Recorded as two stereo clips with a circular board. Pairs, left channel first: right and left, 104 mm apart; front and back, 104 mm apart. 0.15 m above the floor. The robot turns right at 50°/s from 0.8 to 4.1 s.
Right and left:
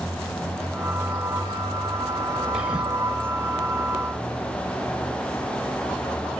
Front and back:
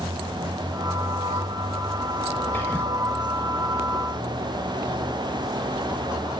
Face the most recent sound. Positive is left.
turn(degrees=100)